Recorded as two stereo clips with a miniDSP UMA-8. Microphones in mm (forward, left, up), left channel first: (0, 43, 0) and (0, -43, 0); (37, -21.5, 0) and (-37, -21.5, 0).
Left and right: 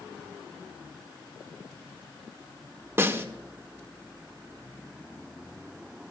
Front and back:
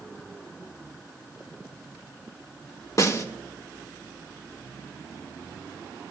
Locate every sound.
3.0 s a snare drum: 35° right, 1.1 m